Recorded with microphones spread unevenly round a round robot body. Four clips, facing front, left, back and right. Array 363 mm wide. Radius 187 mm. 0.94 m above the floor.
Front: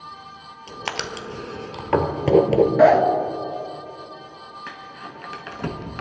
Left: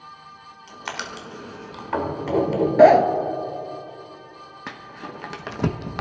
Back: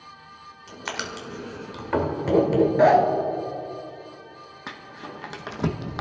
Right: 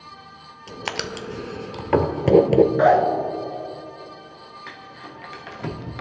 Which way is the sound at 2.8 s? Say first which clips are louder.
Left 9 dB, front 2 dB; 75° left.